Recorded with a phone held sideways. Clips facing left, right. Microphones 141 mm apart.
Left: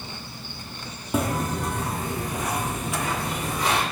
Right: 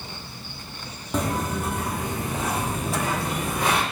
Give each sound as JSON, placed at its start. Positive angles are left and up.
{"t": 1.1, "sound": "footsteps", "side_deg": 10, "distance_m": 1.3}